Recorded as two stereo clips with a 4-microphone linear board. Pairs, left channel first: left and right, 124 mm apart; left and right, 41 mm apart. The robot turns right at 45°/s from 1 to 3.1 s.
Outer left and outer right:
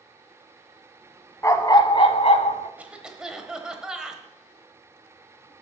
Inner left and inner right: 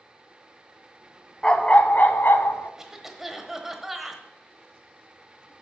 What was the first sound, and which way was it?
A dog barking, 25° left.